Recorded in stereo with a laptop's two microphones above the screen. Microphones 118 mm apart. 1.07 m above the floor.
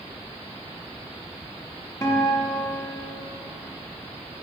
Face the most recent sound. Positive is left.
turn(degrees=25)  # may be behind; listen again after turning